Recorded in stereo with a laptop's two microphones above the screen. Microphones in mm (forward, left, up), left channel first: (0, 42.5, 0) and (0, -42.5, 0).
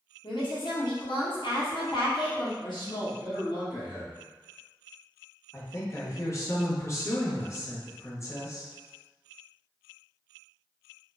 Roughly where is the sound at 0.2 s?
Left.